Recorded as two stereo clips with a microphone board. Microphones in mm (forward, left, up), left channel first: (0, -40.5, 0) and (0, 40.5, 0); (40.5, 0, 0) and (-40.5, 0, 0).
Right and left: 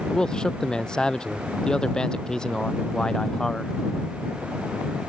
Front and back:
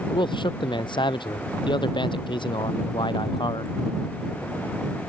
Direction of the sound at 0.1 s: 10° right.